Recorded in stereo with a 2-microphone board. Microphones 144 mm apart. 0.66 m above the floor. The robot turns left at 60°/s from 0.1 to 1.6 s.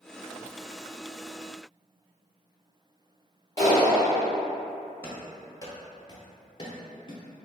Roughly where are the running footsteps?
Centre.